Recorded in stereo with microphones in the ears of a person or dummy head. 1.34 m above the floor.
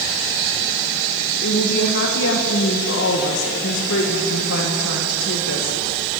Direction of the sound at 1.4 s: 65° left (ahead or behind).